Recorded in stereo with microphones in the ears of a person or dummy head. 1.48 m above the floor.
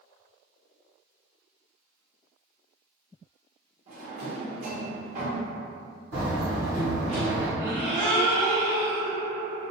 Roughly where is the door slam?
Right.